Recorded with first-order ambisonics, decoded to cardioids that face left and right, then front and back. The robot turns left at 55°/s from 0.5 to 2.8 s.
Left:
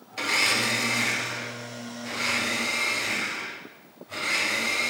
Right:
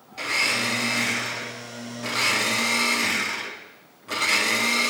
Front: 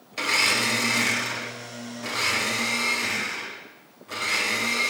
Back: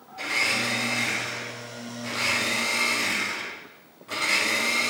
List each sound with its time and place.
0.1 s a blender: 25° left, 1.7 m; by 4.9 s 105° right, 1.7 m